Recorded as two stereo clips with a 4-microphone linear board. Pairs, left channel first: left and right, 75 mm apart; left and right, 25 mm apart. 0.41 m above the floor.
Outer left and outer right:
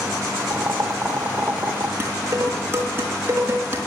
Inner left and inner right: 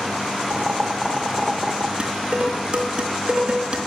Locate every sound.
0.5 s boiling: 30° right (ahead or behind), 1.4 m
2.0 s dishes clattering: 35° right (ahead or behind), 4 m